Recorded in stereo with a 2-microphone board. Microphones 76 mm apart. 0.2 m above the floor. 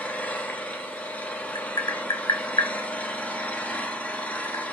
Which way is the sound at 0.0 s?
20° left (ahead or behind).